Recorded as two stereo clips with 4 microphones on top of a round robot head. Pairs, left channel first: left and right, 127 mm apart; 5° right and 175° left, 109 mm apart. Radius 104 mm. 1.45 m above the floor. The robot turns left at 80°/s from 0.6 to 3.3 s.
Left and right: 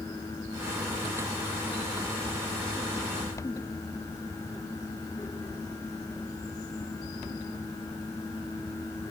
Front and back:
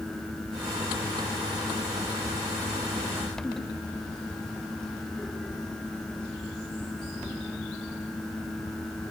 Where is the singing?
No singing in this recording.